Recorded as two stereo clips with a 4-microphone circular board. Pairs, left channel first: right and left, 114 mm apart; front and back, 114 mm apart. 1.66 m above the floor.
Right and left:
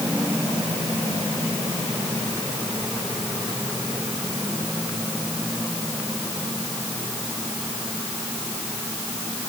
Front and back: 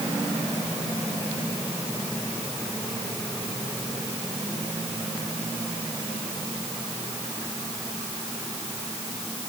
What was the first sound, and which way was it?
Only background noise.